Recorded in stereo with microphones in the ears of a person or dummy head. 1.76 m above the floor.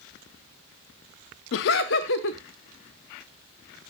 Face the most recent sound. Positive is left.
turn(degrees=50)  # may be behind; listen again after turning